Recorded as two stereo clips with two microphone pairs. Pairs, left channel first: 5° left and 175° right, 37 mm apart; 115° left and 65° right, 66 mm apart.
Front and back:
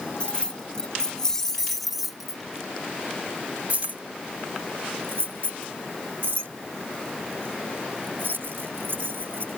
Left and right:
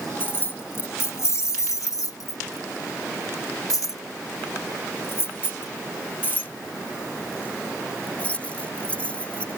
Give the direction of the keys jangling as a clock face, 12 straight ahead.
10 o'clock.